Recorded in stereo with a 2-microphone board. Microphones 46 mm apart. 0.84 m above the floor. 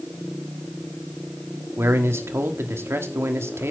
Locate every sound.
1.8 s a man speaking: 70° right (ahead or behind), 1.5 m